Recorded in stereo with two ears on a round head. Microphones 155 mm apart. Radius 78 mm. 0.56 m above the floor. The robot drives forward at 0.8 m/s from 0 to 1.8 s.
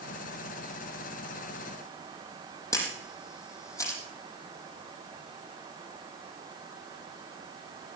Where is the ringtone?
I don't hear a ringtone.